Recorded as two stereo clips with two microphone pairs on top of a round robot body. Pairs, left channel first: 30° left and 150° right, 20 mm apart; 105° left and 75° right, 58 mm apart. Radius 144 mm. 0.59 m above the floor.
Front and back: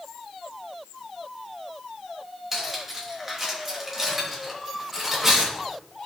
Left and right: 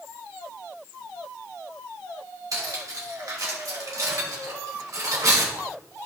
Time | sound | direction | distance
2.5 | cutlery clinking | 75° right | 2.5 m